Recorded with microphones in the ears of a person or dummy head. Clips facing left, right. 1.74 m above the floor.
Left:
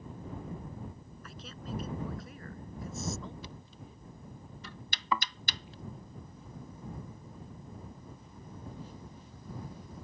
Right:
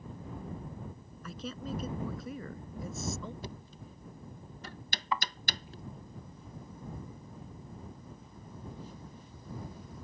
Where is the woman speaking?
75° right (ahead or behind); by 3.3 s 80° right.